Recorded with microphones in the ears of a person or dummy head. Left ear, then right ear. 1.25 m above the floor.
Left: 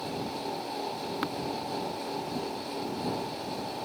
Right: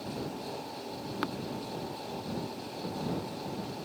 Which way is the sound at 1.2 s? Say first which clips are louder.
Even; 5° left (ahead or behind).